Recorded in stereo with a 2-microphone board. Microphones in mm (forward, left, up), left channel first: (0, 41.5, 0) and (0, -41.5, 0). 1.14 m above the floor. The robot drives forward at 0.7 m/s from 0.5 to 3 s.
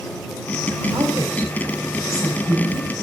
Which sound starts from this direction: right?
A woman speaking, at 0.9 s.